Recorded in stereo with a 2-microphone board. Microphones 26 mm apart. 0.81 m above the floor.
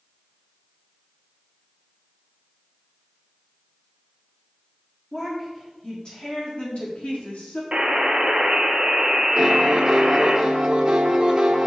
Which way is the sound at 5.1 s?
15° left (ahead or behind).